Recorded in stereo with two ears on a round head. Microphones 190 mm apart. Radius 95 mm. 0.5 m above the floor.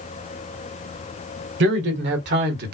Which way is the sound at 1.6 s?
55° right (ahead or behind).